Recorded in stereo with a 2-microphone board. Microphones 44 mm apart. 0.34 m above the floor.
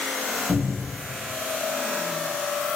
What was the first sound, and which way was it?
A cupboard door, 60° right (ahead or behind).